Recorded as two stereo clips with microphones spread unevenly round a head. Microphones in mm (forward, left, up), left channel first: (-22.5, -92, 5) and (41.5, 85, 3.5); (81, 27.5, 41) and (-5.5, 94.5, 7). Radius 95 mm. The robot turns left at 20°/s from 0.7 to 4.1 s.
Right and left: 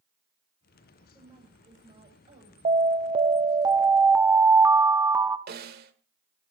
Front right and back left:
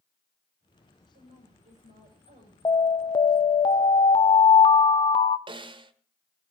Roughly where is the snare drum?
Left.